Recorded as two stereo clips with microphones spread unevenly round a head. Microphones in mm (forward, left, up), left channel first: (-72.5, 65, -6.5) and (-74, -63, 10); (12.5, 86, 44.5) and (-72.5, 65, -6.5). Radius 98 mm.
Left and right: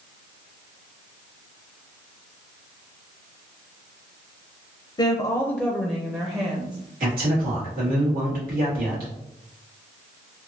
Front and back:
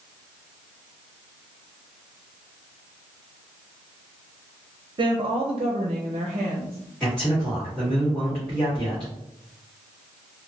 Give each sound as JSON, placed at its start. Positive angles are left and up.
{"t": 5.0, "sound": "a woman speaking", "azimuth_deg": 145, "distance_m": 0.6}
{"t": 7.0, "sound": "a man speaking", "azimuth_deg": -75, "distance_m": 1.7}